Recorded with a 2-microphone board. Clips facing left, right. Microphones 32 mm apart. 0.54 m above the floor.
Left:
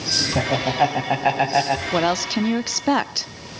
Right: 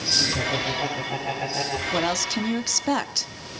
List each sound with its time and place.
0.3 s laughter: 70° left (ahead or behind), 4 m
1.9 s a woman speaking: 20° left (ahead or behind), 0.6 m